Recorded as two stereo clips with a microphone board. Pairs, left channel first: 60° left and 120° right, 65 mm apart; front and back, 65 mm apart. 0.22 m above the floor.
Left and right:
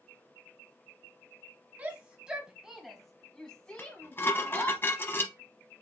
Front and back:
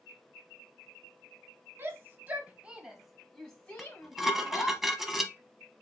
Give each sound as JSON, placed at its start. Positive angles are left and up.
{"t": 1.8, "sound": "a shout", "azimuth_deg": -175, "distance_m": 1.2}
{"t": 3.8, "sound": "dishes clattering", "azimuth_deg": 95, "distance_m": 0.8}